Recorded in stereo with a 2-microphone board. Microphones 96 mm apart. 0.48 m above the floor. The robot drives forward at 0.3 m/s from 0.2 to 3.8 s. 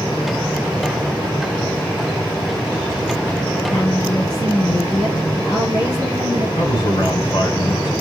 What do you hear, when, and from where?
3.7 s a woman speaking: 45° left (ahead or behind), 3 m; by 6.5 s 40° left (ahead or behind), 3 m
6.5 s a man speaking: 35° left (ahead or behind), 3 m